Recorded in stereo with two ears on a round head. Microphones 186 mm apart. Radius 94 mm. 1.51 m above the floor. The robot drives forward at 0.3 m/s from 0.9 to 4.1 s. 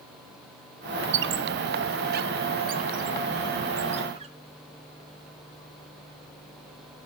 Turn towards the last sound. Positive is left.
turn(degrees=-30)  # may be behind; listen again after turning